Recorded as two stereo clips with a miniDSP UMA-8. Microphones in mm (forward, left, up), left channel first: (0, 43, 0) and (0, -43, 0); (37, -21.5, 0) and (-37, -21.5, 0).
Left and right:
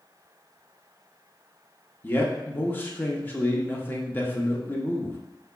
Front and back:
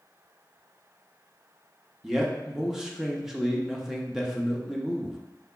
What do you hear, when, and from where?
2.0 s a man speaking: 105° left, 0.7 m